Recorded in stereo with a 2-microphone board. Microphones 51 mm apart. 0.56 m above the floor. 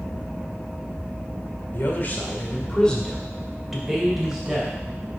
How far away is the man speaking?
About 1.6 m.